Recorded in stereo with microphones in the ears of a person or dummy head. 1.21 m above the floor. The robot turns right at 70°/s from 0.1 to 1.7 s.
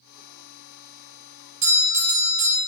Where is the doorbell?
40° right (ahead or behind), 1.0 m; by 2.6 s 35° right (ahead or behind), 1.0 m.